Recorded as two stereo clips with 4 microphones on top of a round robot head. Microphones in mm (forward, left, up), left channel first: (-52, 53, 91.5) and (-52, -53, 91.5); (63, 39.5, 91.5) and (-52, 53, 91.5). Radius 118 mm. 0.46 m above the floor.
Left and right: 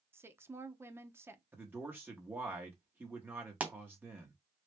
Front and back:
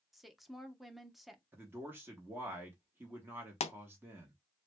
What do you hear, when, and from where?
0.1 s a woman speaking: 100° right, 0.8 m
1.5 s a man speaking: 135° right, 1.1 m
3.6 s a pop: 15° right, 0.7 m